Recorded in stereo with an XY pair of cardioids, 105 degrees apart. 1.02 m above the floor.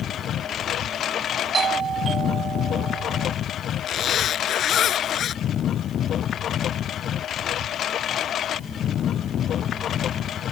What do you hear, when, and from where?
0.0 s a lawn mower: 65° left
1.5 s a doorbell: 45° right
3.9 s a zipper: 65° left